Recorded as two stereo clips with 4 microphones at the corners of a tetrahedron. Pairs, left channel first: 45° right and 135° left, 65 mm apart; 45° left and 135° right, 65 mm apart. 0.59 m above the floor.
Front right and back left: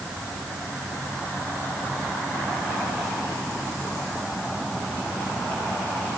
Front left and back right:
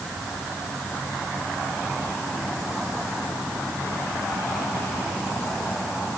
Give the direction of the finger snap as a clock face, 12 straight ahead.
No finger snap in this recording.